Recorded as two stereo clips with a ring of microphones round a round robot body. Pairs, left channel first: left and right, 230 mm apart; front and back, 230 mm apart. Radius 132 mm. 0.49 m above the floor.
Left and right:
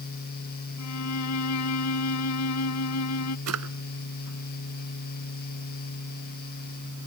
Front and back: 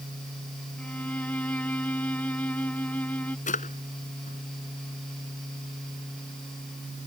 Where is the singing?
No singing in this recording.